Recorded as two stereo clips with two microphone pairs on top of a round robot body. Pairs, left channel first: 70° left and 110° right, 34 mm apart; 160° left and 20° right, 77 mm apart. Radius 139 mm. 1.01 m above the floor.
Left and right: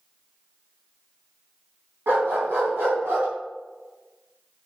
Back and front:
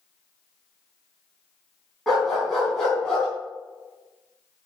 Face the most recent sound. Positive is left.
turn(degrees=-120)